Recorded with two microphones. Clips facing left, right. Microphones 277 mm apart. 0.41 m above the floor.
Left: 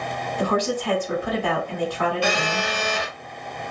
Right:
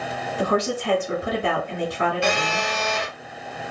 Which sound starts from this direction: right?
A woman speaking, at 0.4 s.